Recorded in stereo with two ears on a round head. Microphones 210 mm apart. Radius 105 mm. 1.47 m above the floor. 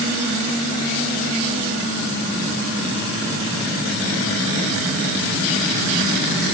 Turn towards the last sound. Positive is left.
No sound to turn to.